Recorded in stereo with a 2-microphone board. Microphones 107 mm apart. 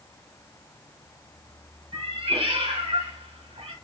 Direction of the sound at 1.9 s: 85° right.